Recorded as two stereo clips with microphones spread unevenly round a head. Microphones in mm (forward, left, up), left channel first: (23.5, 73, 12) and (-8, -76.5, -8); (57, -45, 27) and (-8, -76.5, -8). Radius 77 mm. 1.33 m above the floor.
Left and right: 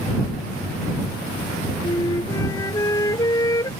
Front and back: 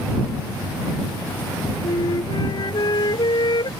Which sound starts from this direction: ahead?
A flute, at 1.8 s.